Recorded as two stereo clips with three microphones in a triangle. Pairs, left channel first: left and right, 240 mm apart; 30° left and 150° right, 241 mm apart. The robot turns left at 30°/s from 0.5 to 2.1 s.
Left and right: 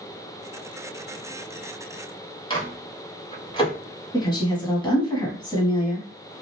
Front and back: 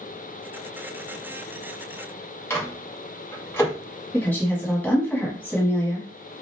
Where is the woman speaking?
100° left, 1.0 m.